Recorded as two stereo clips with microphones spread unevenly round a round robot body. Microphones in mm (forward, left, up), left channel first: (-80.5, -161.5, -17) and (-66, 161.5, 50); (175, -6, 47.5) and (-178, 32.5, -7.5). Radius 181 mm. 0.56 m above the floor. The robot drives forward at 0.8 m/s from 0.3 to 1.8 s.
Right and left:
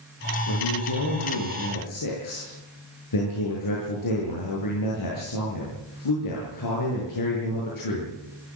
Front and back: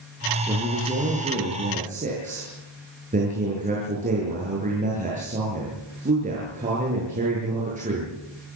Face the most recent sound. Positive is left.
turn(degrees=-115)